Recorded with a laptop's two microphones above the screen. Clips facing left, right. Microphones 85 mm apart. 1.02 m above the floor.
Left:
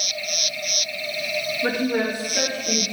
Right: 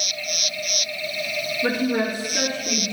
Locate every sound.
1.6 s a woman speaking: 15° right (ahead or behind), 1.2 m; by 2.9 s 45° right (ahead or behind), 3 m